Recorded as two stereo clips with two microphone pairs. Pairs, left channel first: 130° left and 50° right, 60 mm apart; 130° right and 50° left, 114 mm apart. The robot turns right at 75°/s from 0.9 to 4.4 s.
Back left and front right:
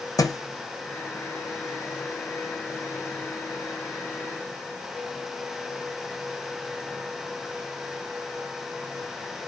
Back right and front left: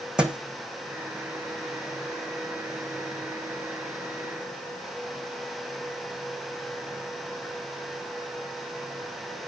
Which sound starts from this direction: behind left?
A thud, at 0.2 s.